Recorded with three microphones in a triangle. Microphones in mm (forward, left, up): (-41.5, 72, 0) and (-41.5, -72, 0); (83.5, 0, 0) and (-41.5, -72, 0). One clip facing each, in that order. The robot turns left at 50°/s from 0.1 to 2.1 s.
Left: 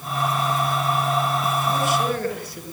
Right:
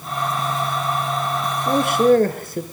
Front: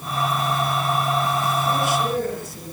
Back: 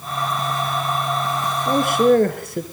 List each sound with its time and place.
1.7 s a man speaking: 110° right, 4 m; by 2.6 s 130° right, 4 m